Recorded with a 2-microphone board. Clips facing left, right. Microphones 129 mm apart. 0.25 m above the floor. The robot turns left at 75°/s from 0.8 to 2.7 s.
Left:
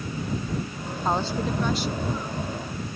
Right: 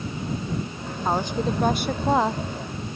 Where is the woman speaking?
Straight ahead; by 2.4 s 105° right.